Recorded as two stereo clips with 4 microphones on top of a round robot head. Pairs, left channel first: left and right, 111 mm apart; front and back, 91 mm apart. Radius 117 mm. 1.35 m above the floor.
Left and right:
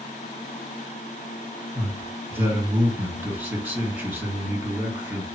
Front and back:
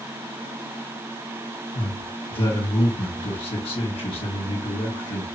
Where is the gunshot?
No gunshot in this recording.